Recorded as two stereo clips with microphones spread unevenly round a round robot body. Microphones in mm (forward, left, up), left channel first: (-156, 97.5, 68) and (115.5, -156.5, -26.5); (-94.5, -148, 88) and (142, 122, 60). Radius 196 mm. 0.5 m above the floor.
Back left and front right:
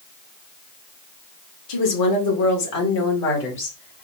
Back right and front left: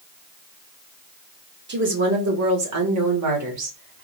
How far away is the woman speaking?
About 1.9 m.